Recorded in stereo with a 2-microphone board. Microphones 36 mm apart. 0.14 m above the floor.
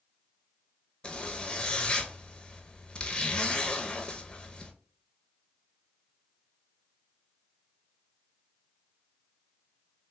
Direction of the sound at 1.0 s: 25° left (ahead or behind).